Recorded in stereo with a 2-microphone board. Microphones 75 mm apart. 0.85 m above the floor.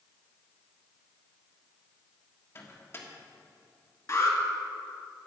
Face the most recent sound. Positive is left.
turn(degrees=45)  # may be behind; listen again after turning